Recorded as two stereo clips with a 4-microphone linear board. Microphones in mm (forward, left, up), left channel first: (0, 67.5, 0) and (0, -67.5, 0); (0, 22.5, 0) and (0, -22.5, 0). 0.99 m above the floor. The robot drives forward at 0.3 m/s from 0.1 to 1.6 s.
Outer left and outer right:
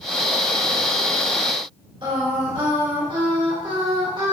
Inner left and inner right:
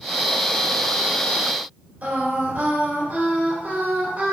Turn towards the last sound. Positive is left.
turn(degrees=-40)  # may be behind; listen again after turning